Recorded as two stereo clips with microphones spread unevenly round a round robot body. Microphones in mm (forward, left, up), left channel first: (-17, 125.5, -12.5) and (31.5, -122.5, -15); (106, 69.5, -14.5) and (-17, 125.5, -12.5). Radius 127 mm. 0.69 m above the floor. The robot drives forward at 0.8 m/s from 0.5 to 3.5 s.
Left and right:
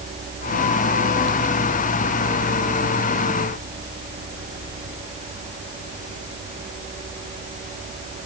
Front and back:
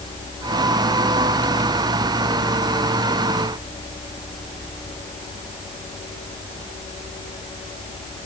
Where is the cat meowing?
No cat meowing in this recording.